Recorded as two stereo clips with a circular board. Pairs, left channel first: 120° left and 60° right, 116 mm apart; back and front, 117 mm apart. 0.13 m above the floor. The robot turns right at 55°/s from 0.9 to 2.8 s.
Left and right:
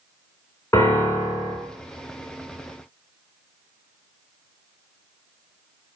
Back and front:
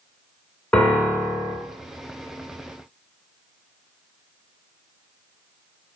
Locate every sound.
0.7 s a piano: 135° left, 1.1 m; by 1.6 s 170° left, 1.1 m